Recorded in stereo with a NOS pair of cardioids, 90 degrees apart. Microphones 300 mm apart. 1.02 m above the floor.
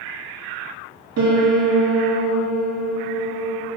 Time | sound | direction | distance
1.2 | a piano | 65° right | 2.5 m